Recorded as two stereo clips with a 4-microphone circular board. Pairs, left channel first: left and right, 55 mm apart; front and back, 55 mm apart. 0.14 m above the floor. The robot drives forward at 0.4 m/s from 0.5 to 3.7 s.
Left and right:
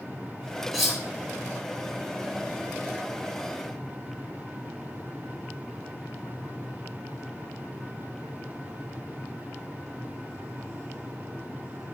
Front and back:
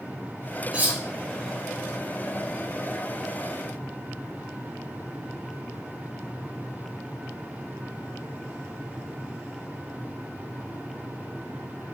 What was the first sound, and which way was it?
Cutlery clinking, 175° right.